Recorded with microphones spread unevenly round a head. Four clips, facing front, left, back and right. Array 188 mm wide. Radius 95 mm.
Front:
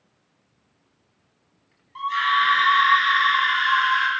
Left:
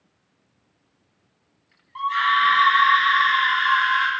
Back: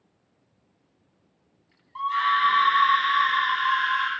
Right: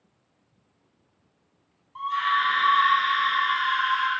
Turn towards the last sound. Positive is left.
turn(degrees=90)